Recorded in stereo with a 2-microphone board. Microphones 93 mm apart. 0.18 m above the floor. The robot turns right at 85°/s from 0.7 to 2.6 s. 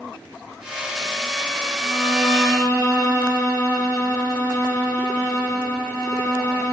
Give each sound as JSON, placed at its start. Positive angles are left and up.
{"t": 1.8, "sound": "a violin", "azimuth_deg": 80, "distance_m": 3.5}